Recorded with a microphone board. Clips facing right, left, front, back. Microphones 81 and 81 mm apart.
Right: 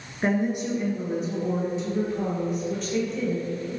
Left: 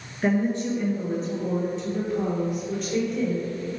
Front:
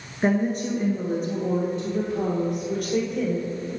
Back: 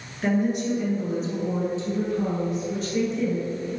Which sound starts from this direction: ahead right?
A woman speaking, at 0.2 s.